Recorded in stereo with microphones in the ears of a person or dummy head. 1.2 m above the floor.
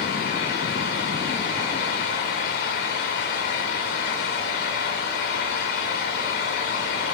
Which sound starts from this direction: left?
A fan, at 0.0 s.